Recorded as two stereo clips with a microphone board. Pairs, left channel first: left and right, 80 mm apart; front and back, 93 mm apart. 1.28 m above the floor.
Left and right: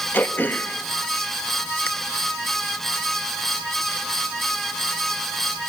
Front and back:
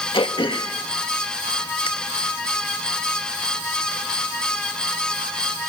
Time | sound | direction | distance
0.1 | throat clearing | 20° left | 1.8 m